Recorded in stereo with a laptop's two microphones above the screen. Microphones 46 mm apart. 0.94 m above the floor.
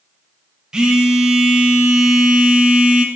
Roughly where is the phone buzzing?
Centre.